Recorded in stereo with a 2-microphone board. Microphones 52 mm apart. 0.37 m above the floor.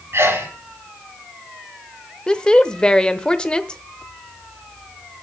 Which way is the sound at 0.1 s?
55° right (ahead or behind).